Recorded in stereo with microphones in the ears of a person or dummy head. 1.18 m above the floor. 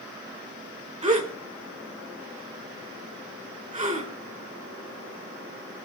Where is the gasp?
25° right (ahead or behind), 3 m.